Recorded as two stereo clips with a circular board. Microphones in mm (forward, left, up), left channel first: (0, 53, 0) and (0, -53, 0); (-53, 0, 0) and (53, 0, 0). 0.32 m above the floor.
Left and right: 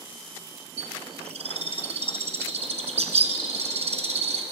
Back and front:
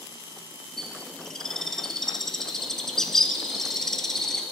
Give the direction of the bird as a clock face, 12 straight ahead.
3 o'clock.